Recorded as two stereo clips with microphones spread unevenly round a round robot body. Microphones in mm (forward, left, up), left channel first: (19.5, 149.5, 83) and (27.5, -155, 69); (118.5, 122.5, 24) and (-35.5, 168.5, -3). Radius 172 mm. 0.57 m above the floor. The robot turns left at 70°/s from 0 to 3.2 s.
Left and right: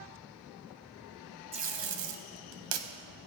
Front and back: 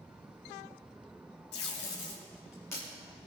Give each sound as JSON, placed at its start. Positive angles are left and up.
{"t": 1.5, "sound": "tape being pulled", "azimuth_deg": -15, "distance_m": 1.1}